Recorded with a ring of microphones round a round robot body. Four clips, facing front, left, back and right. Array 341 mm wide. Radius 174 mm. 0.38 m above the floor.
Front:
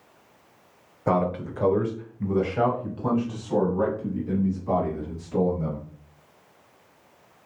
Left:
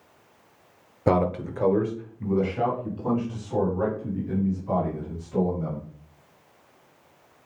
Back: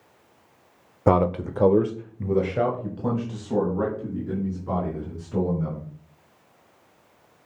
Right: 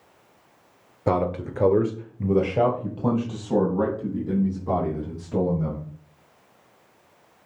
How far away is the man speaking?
About 1.4 m.